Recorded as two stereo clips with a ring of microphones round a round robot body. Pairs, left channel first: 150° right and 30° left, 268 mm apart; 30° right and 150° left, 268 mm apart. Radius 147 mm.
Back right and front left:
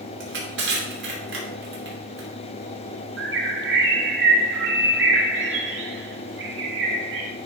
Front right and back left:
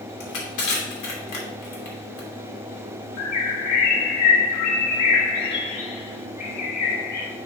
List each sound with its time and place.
0.2 s crushing: 20° right, 2.5 m
3.2 s a bird: 15° right, 1.5 m